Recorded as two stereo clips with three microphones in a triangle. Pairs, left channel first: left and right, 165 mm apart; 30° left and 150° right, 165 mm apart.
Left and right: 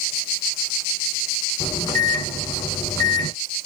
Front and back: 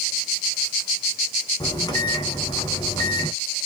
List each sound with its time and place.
1.6 s a microwave: 55° left, 0.9 m